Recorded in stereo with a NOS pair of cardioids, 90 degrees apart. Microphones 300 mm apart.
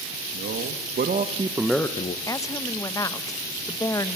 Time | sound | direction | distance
0.3 | a man speaking | 50° right | 2 m
2.3 | a woman speaking | 10° left | 1.3 m